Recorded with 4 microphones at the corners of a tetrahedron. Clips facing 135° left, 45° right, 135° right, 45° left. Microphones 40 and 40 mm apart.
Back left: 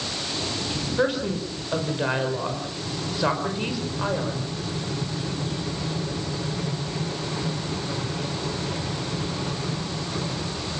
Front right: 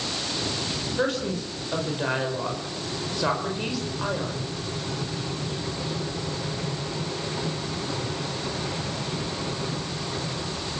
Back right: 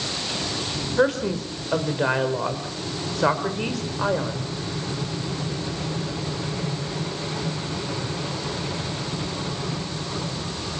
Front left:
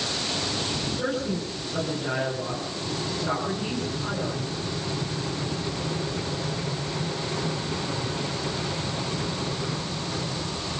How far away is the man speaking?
About 5.5 m.